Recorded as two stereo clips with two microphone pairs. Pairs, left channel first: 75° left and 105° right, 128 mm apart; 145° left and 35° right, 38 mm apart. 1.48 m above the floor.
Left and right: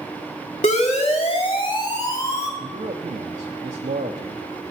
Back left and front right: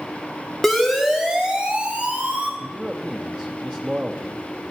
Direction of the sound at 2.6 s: 95° right.